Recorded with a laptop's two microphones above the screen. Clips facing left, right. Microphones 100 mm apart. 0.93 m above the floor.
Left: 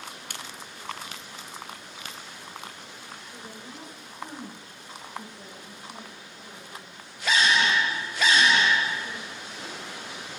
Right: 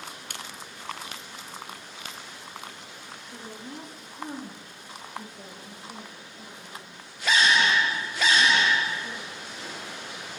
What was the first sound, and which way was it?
A woman speaking, 45° right (ahead or behind).